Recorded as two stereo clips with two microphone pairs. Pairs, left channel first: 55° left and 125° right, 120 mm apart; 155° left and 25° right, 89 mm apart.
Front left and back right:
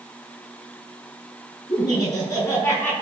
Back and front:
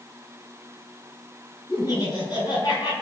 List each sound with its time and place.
1.7 s laughter: 105° left, 5.5 m; by 2.9 s 120° left, 5.5 m